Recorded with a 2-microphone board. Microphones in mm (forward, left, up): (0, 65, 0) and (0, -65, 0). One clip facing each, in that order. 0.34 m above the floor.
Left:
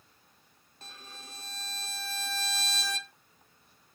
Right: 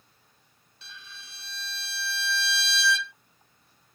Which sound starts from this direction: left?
A violin, at 0.8 s.